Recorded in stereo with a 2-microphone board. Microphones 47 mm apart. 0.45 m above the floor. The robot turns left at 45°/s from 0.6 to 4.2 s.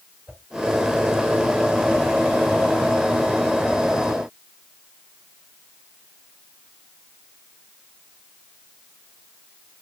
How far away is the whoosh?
About 4 m.